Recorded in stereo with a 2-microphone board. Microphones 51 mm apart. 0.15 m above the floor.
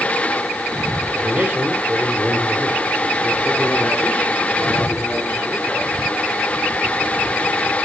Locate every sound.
1.1 s a man speaking: 35° right (ahead or behind), 2.5 m; by 6.0 s 15° left (ahead or behind), 3.5 m